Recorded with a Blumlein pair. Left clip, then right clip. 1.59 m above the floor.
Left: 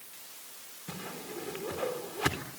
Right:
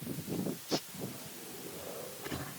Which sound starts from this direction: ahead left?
A whoosh, at 0.9 s.